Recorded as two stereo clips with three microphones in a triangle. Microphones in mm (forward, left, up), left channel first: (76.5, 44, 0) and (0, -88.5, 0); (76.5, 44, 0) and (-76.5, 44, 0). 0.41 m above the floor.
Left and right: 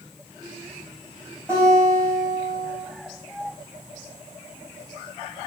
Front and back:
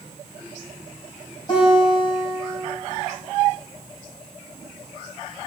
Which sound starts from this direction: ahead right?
A guitar, at 1.5 s.